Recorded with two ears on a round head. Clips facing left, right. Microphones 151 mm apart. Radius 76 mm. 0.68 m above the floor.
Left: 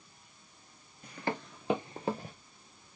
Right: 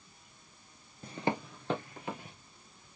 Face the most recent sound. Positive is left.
turn(degrees=40)  # may be behind; listen again after turning